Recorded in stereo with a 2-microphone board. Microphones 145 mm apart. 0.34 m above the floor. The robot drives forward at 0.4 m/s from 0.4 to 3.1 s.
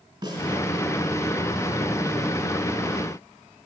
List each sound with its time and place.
0.2 s a snare drum: 35° right (ahead or behind), 2.5 m